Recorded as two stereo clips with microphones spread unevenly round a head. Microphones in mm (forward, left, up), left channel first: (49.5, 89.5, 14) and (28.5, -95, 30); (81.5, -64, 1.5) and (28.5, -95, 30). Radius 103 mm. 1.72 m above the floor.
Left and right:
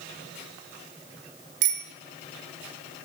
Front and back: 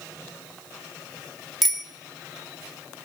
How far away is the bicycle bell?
About 2.5 m.